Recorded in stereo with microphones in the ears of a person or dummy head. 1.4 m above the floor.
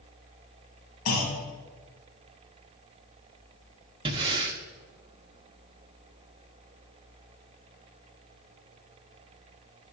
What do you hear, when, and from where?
1.1 s a clunk: 85° left, 2 m
4.0 s breathing: 25° right (ahead or behind), 0.7 m